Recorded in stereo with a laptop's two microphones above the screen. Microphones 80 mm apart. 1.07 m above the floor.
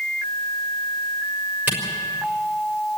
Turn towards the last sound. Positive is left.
turn(degrees=-25)  # may be behind; listen again after turning